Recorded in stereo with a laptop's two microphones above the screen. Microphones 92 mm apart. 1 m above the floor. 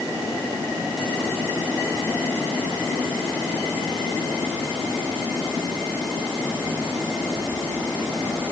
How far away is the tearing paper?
I don't hear tearing paper.